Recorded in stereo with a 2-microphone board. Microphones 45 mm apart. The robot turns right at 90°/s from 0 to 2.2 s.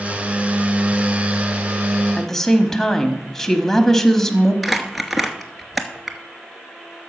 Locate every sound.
2.2 s a woman speaking: 10° left (ahead or behind), 1.0 m
4.6 s crumpling: 5° right (ahead or behind), 0.9 m